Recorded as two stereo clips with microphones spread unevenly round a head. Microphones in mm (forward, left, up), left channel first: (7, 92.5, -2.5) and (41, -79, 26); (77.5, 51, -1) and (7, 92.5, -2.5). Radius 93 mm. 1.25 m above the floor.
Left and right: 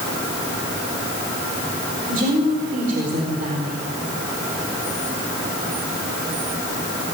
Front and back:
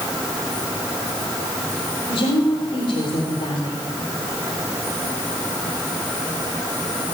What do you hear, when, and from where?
2.1 s a woman speaking: 35° right, 4 m